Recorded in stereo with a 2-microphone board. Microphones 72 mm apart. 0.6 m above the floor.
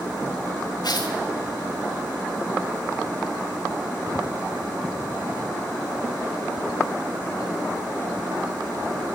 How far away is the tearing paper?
About 4 m.